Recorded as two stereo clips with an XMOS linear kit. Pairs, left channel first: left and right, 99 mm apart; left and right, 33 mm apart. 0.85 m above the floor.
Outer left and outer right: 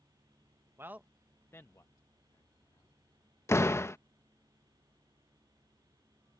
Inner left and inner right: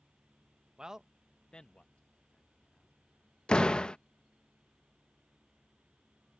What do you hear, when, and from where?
0.8 s a man speaking: 25° right (ahead or behind); by 2.9 s 45° left (ahead or behind)
3.5 s a door slam: 25° left (ahead or behind)